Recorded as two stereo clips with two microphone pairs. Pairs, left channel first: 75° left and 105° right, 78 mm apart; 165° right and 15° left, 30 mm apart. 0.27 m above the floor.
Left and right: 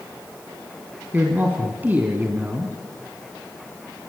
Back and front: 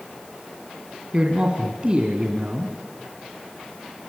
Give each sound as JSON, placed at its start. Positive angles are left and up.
{"t": 1.1, "sound": "a man speaking", "azimuth_deg": -40, "distance_m": 2.5}